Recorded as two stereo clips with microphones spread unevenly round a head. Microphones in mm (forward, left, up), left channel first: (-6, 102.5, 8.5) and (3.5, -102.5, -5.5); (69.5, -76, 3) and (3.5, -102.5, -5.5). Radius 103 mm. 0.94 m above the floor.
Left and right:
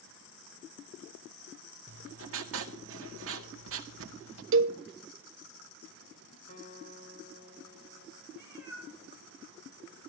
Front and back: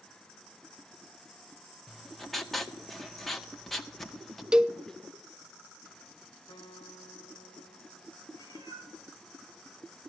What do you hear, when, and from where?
1.9 s writing: 65° right, 1.9 m
4.5 s a cowbell: 80° right, 0.9 m
6.5 s a guitar: 45° left, 1.9 m
8.3 s a cat meowing: 170° right, 7.5 m